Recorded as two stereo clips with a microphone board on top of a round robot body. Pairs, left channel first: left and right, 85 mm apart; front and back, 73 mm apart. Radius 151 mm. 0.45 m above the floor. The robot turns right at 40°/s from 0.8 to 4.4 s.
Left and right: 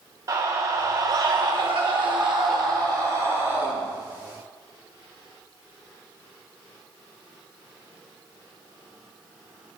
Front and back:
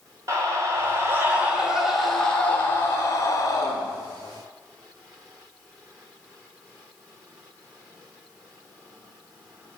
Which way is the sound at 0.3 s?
135° right.